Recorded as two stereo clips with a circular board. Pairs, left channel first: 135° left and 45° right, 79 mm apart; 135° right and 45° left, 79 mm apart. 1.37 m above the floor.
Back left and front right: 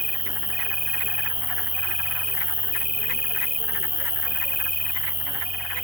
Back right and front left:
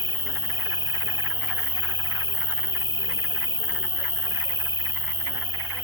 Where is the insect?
135° right.